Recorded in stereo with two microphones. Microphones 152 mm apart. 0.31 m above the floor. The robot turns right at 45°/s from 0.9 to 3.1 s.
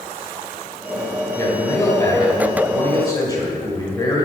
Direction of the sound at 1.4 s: 15° left (ahead or behind).